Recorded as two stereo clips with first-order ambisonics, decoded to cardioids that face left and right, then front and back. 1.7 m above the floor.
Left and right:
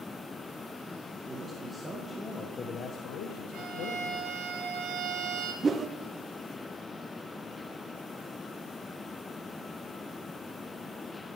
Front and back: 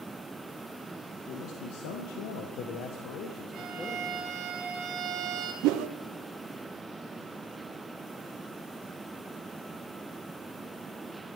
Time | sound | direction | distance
1.3 | a man speaking | 20° right | 2.5 m
3.5 | a violin | 130° right | 4 m
5.6 | a whoosh | 165° right | 0.7 m